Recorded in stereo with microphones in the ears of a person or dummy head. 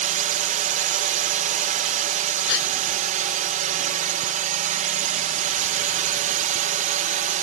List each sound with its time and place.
0.0 s a drone: 40° right (ahead or behind)
2.5 s a gasp: 70° left (ahead or behind)